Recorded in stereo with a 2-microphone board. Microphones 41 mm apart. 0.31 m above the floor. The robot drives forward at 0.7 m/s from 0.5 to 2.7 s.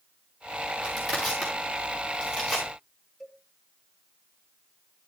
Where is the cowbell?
5° left (ahead or behind), 2.5 m.